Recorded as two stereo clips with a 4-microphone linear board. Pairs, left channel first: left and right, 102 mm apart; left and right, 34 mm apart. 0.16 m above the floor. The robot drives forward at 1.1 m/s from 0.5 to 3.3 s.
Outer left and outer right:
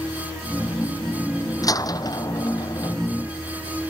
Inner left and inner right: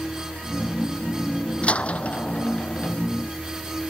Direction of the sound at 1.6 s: 35° left (ahead or behind).